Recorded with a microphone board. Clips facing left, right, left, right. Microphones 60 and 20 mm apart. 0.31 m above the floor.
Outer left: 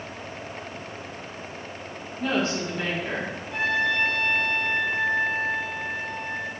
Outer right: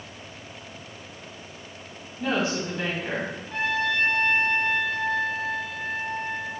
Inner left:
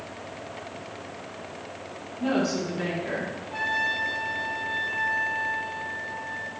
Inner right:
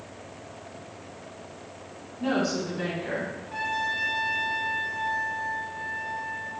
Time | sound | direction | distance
2.2 | a woman speaking | 15° right (ahead or behind) | 1.8 m
3.5 | a trumpet | 40° right (ahead or behind) | 1.6 m